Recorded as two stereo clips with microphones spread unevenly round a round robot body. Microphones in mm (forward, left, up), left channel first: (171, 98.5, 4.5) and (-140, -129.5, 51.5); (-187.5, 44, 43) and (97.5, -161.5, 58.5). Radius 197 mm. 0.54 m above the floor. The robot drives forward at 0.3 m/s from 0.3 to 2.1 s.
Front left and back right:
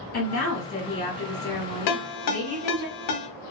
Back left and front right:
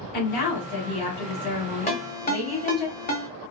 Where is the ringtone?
75° left, 0.8 m; by 3.3 s 80° left, 0.8 m.